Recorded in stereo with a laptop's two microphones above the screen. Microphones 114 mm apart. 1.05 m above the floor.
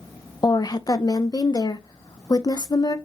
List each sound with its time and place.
0.4 s a woman speaking: 35° left (ahead or behind), 0.5 m